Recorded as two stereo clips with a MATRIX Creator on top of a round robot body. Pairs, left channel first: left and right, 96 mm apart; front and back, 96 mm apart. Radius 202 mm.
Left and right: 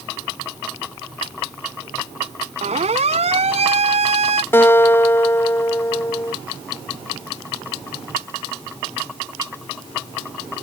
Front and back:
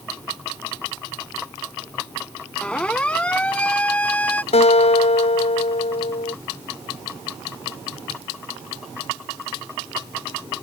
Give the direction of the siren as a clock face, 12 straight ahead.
3 o'clock.